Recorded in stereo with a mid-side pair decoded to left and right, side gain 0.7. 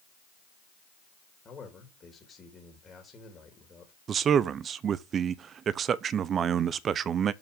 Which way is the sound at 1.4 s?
30° left.